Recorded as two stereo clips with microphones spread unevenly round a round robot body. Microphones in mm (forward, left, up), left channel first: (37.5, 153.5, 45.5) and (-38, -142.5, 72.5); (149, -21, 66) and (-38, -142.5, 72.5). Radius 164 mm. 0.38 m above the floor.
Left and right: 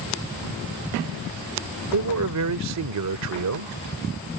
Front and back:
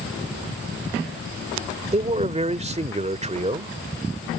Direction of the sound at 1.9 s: 90° right.